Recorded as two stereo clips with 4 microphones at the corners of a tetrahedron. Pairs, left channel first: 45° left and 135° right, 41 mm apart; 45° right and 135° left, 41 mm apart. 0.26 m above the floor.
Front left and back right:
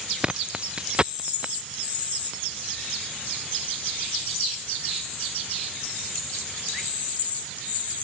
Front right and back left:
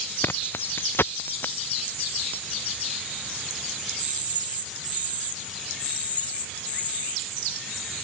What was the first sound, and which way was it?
Keys jangling, 70° right.